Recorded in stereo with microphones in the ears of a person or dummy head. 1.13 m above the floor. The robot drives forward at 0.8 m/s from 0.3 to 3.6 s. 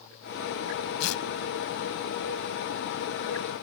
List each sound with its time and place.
1.0 s tearing paper: 80° left; by 1.2 s 75° left (ahead or behind)